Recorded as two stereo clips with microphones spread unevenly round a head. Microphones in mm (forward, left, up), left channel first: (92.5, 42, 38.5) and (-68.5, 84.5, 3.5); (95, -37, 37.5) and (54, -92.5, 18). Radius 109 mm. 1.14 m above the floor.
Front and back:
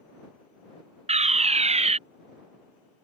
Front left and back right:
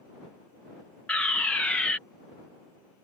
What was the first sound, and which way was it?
A fire alarm, 140° left.